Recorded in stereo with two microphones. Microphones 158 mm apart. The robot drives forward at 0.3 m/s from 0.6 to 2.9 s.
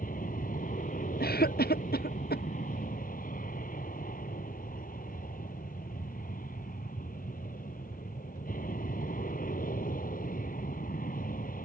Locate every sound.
0.0 s an aircraft: 60° left (ahead or behind)
1.2 s a cough: 75° left (ahead or behind); by 2.4 s 80° left